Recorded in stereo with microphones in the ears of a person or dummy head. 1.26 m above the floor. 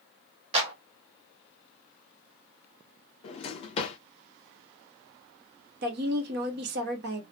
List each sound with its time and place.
0.5 s a clap: 30° right (ahead or behind), 0.9 m
3.2 s a drawer: 30° left (ahead or behind), 0.6 m
5.8 s a woman speaking: 50° right (ahead or behind), 0.8 m